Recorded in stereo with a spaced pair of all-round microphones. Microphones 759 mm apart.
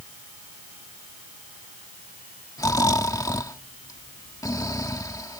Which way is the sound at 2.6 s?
5° left (ahead or behind).